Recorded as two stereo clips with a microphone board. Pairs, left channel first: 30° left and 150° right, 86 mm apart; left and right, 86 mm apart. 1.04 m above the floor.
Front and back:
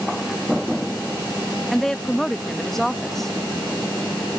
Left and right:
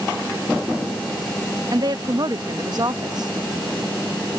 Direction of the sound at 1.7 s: 55° right.